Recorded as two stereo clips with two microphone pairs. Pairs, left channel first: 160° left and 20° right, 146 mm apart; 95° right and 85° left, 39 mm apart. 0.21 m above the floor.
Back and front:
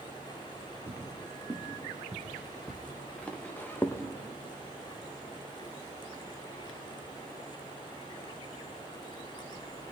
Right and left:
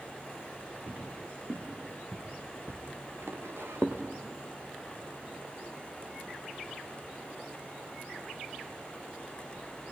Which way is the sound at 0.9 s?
55° left.